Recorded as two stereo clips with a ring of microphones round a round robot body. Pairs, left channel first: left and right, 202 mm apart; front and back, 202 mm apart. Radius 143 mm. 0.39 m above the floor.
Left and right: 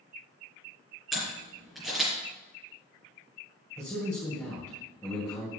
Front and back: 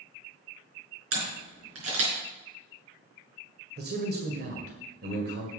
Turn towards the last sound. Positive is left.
turn(degrees=165)